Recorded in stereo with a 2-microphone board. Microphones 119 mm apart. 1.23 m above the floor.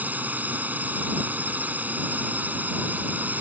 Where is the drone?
15° right (ahead or behind).